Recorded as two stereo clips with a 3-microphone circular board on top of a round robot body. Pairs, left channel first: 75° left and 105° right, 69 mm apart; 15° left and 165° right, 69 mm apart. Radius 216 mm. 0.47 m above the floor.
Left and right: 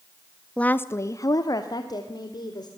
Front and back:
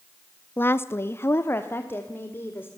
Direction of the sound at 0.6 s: 15° left.